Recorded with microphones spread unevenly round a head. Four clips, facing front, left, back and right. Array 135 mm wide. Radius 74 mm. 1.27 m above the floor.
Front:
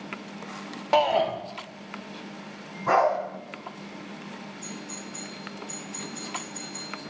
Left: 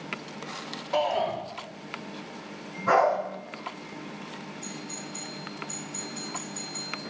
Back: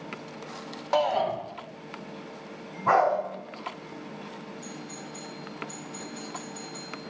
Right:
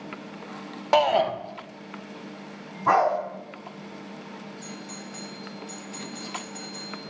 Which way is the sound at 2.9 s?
110° right.